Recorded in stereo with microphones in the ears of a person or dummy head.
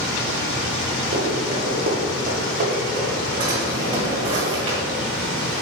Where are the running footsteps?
30° right (ahead or behind), 1.9 m; by 3.2 s 55° right (ahead or behind), 3.5 m.